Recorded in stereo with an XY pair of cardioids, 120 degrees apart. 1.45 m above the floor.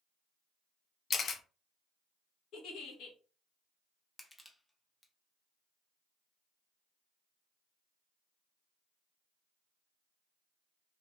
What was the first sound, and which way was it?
A camera shutter, 45° left.